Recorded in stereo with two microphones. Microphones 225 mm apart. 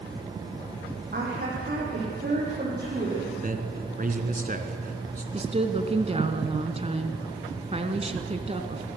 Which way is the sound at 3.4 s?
40° right (ahead or behind).